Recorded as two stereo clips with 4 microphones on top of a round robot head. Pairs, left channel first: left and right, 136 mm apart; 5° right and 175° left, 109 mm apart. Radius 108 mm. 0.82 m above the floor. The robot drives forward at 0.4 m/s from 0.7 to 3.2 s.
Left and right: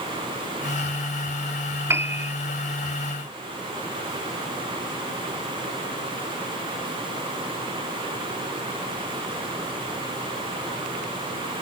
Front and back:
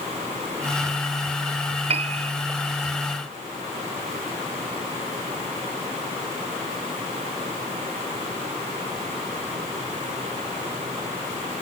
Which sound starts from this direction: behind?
A piano, at 1.9 s.